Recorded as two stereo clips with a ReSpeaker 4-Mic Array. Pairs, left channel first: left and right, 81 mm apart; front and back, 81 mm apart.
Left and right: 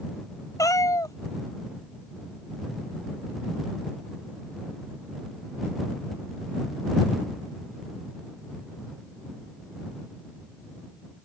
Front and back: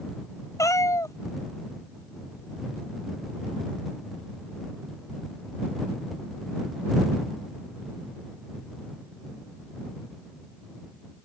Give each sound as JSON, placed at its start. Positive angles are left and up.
{"t": 0.6, "sound": "a cat meowing", "azimuth_deg": 45}